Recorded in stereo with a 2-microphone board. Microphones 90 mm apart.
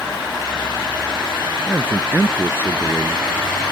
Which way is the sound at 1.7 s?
25° right (ahead or behind).